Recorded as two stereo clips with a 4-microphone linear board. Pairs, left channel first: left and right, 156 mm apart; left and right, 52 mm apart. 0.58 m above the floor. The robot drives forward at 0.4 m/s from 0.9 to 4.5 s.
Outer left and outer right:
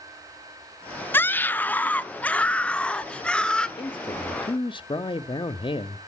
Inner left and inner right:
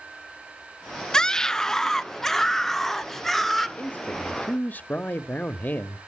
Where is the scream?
15° left (ahead or behind), 0.6 m; by 3.7 s 5° left (ahead or behind), 1.3 m.